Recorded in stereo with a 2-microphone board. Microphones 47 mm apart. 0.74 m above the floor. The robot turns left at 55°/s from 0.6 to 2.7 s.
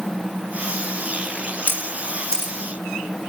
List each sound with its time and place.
1.7 s a camera shutter: 40° left (ahead or behind), 0.9 m; by 2.5 s centre (ahead or behind), 0.9 m